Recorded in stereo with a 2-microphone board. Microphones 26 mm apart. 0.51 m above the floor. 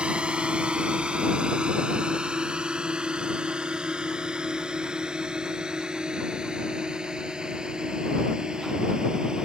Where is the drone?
40° right (ahead or behind); by 9.5 s 25° right (ahead or behind).